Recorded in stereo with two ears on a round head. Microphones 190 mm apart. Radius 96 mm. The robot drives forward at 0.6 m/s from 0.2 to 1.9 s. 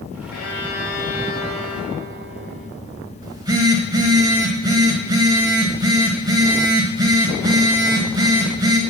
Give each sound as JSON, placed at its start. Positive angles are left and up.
{"t": 0.3, "sound": "a violin", "side_deg": 70, "distance_m": 2.5}
{"t": 3.2, "sound": "a phone buzzing", "side_deg": -20, "distance_m": 1.2}